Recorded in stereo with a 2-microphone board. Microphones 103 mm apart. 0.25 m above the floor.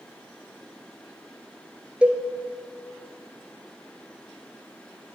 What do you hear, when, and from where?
2.0 s a cowbell: 10° right (ahead or behind), 0.6 m